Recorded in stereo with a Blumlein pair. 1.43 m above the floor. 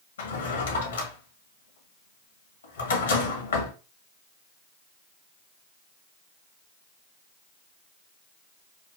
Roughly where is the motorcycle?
No motorcycle in this recording.